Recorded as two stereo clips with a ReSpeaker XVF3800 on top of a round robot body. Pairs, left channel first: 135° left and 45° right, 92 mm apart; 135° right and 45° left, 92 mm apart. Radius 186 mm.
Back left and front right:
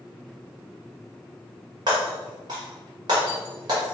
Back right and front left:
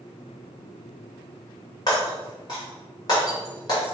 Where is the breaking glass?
90° right, 1.8 m.